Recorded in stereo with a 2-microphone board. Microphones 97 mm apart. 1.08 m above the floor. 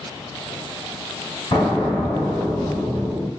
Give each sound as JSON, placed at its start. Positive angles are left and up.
{"t": 1.5, "sound": "an explosion", "side_deg": 50, "distance_m": 2.5}